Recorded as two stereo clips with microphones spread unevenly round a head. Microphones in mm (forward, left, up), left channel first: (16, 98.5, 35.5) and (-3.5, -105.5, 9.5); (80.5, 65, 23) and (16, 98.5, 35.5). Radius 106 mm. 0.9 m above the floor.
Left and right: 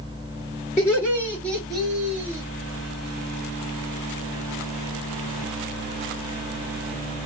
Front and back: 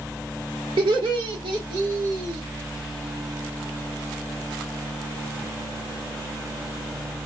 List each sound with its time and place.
0.8 s laughter: 165° left, 1.6 m; by 2.4 s 165° right, 0.7 m